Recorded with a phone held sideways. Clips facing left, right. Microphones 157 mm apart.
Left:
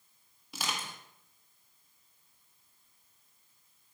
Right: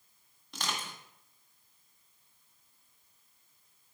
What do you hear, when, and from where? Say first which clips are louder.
0.5 s crushing: even; 5° left (ahead or behind), 1.6 m